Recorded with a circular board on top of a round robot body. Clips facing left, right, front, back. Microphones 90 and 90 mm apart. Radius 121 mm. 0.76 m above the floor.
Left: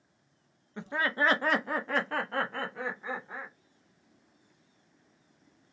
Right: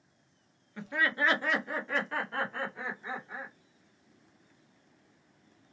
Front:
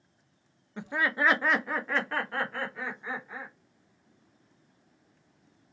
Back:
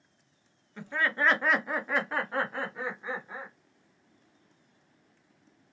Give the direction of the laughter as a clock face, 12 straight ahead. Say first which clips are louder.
Left 1 dB, front 1 dB; 10 o'clock.